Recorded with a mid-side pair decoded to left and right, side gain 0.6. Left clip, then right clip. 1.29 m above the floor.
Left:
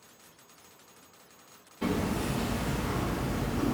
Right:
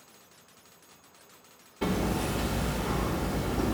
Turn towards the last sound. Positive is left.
turn(degrees=-30)